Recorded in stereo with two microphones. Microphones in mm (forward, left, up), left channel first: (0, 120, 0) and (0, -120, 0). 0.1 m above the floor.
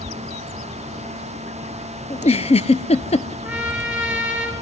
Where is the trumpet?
5° right (ahead or behind), 3.5 m.